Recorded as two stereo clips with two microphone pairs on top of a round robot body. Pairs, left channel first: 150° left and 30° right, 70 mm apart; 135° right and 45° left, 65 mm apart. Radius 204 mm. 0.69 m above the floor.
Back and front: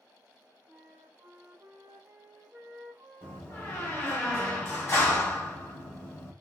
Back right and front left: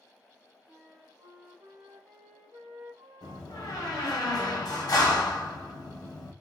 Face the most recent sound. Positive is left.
turn(degrees=-155)